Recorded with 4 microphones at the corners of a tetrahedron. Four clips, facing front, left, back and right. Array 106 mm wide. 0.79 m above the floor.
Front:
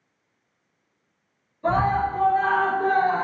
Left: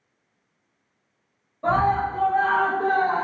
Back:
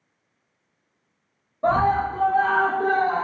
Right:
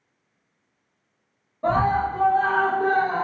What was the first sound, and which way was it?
A scream, 175° right.